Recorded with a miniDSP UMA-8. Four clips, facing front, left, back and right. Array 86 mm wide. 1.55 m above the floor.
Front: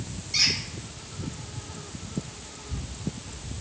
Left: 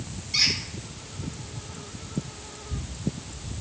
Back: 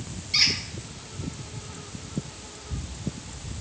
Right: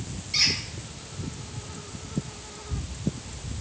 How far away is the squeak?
About 1.3 m.